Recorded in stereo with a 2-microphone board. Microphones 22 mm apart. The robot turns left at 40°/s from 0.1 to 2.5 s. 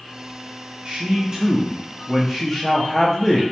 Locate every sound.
0.8 s a man speaking: 130° right, 0.5 m; by 3.4 s 165° left, 0.5 m